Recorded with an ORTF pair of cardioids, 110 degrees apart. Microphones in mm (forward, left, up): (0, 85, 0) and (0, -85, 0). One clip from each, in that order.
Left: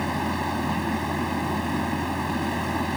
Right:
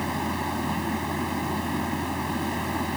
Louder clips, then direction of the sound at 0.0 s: Left 2 dB; 40° left.